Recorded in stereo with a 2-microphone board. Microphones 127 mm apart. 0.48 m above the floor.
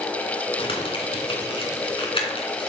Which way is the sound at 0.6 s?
45° left (ahead or behind).